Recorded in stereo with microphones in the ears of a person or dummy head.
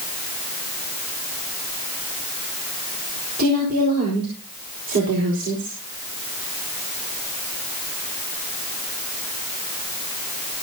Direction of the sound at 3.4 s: 55° right (ahead or behind).